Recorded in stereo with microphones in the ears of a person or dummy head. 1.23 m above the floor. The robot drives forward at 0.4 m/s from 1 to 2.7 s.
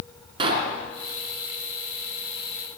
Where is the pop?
25° right (ahead or behind), 5 m.